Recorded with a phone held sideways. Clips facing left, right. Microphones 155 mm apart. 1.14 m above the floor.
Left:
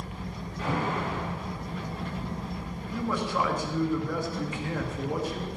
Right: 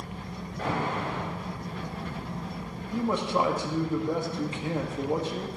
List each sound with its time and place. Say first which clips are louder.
0.6 s an alarm: even; 40° right (ahead or behind), 7.5 m
2.9 s a man speaking: right 3 dB; 25° right (ahead or behind), 2 m